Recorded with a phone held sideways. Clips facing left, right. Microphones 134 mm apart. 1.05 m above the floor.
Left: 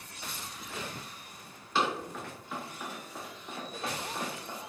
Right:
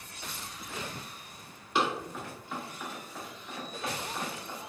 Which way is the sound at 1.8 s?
15° right (ahead or behind).